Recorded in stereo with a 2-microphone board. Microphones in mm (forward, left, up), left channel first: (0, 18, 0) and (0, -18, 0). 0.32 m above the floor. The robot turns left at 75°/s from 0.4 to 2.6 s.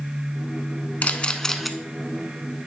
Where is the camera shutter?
50° left (ahead or behind), 0.5 m; by 1.7 s centre (ahead or behind), 0.5 m.